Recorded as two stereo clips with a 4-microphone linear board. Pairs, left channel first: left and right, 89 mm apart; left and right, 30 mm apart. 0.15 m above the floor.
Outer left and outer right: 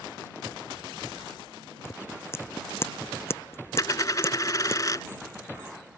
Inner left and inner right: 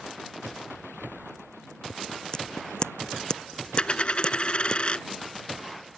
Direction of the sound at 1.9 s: 25° left (ahead or behind).